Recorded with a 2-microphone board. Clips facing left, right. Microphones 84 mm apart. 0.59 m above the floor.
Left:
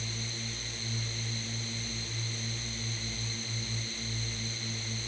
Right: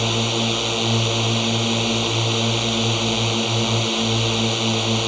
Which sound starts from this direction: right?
A drone, at 0.0 s.